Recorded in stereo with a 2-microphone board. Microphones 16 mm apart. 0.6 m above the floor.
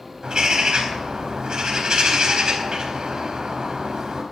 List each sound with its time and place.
0.2 s a bird: 60° right (ahead or behind), 4.5 m